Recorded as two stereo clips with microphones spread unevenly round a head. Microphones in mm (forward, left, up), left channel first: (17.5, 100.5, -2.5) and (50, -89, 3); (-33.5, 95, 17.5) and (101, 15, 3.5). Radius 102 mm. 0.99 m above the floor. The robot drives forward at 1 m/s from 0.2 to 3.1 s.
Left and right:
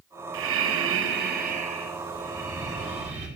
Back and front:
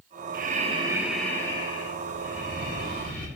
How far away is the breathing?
About 1.0 m.